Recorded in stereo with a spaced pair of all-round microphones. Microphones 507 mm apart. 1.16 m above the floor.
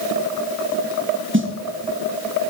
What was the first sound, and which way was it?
A snare drum, 20° right (ahead or behind).